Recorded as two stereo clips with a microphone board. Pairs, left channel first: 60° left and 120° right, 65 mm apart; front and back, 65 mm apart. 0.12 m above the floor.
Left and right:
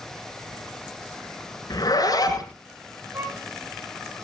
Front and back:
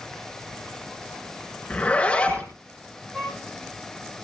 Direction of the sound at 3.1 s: 80° right.